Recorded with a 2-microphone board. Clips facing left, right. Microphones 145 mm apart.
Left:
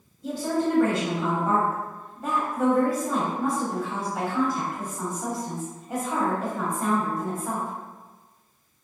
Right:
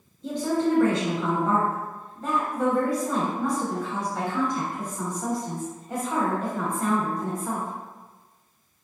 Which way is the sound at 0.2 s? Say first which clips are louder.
Right 1 dB; 5° left (ahead or behind).